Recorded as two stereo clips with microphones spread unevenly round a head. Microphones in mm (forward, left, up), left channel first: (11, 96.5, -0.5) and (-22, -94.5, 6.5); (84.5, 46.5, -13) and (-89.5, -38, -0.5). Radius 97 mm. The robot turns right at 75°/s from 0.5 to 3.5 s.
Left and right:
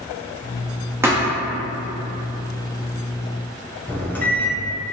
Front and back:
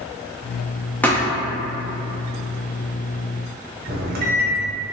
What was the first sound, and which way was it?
A thud, 55° right.